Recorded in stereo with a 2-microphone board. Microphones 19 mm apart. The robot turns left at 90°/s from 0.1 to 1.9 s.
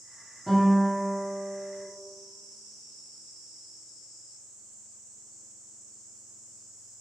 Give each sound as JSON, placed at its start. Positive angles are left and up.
{"t": 0.5, "sound": "a guitar", "side_deg": -10, "distance_m": 1.2}